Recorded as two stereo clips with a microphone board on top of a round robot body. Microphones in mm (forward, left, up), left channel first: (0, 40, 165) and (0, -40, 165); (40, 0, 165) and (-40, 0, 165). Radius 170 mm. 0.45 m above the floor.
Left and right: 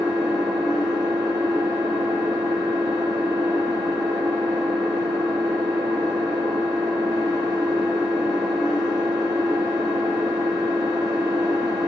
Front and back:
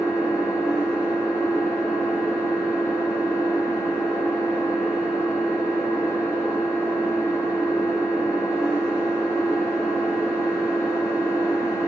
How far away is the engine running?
About 0.9 m.